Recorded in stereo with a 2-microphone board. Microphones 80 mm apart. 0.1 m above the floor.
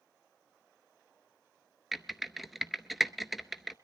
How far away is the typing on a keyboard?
About 0.6 m.